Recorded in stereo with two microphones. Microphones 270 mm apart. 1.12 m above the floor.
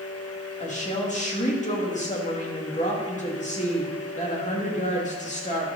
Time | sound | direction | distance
0.6 | a woman speaking | 25° left (ahead or behind) | 2 m